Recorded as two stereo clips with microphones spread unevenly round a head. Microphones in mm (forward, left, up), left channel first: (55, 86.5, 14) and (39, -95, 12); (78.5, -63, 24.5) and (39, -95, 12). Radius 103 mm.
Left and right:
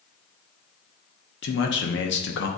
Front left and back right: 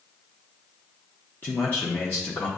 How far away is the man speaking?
About 1.0 m.